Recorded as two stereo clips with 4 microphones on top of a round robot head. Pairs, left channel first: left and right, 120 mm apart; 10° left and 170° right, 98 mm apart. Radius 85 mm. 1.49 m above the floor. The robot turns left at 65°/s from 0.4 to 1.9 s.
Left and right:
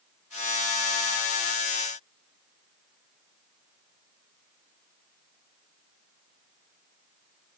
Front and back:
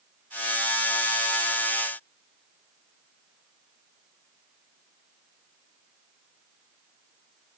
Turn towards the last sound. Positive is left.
No sound to turn to.